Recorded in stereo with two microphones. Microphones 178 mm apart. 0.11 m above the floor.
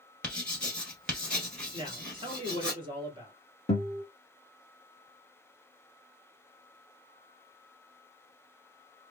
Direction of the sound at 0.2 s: 5° left (ahead or behind).